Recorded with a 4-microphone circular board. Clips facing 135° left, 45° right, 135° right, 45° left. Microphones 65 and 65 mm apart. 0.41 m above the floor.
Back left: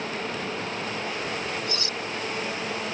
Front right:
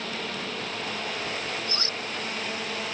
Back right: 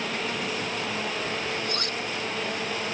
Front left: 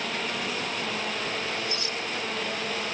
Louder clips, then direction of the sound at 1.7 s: Back left 2 dB, back right 2 dB; 100° right.